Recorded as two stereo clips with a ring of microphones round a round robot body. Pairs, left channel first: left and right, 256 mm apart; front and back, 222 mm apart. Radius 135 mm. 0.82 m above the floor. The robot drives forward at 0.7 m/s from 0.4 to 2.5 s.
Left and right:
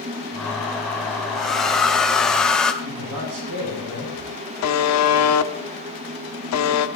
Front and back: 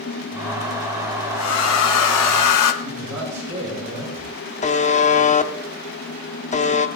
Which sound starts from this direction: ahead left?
A buzzer, at 4.6 s.